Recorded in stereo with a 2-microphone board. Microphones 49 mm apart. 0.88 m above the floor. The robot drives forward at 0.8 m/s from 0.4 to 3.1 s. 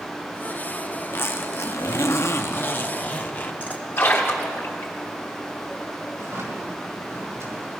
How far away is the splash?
About 3 m.